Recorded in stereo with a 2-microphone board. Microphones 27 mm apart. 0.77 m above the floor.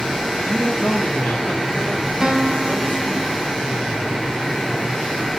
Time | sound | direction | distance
0.5 | a man speaking | 45° left (ahead or behind) | 0.9 m
2.2 | a guitar | 20° right (ahead or behind) | 2.0 m